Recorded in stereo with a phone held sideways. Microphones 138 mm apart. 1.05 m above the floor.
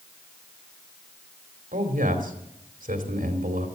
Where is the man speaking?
85° right, 2.5 m.